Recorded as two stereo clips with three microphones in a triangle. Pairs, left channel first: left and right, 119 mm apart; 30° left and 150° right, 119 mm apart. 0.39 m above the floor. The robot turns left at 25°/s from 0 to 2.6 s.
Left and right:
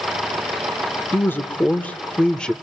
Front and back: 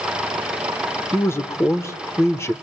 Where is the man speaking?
55° left, 0.8 m; by 2.5 s 20° left, 0.8 m.